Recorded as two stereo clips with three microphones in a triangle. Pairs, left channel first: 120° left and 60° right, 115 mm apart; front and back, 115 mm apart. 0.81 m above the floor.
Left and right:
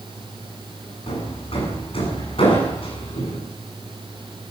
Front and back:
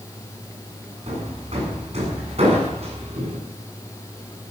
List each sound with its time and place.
1.1 s hammering: 155° left, 8 m